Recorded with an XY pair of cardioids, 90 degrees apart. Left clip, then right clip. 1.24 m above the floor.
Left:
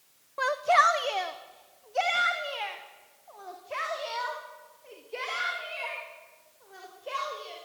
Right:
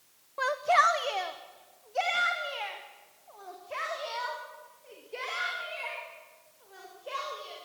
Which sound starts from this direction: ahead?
A shout, at 0.4 s.